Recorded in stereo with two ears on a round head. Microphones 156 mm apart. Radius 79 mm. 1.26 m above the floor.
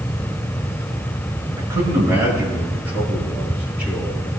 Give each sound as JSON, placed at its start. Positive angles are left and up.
{"t": 1.6, "sound": "a man speaking", "side_deg": -20, "distance_m": 5.5}